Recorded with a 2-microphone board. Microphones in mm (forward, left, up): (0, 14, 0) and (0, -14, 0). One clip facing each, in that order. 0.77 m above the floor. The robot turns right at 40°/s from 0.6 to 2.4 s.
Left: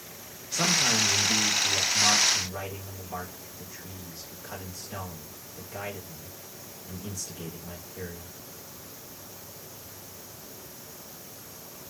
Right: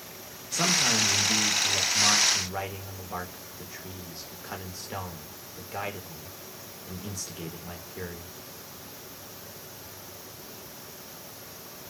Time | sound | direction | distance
0.5 | a man speaking | 165° left | 1.1 m